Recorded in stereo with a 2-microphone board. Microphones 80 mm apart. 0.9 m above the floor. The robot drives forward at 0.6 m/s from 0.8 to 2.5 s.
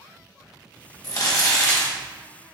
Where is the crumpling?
50° left (ahead or behind), 1.1 m; by 1.9 s 35° left (ahead or behind), 1.5 m.